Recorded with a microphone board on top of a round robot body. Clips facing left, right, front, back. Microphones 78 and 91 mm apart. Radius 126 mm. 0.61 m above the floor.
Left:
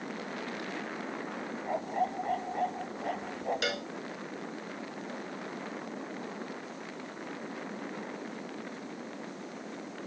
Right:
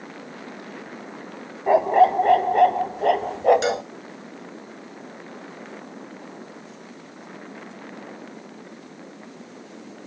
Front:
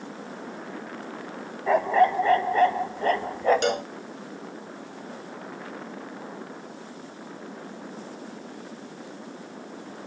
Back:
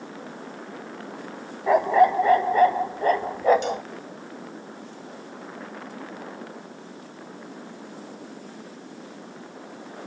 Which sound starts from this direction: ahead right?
A cowbell, at 3.6 s.